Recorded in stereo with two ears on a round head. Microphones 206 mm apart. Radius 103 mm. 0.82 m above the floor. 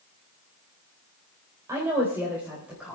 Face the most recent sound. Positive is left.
turn(degrees=-5)  # may be behind; listen again after turning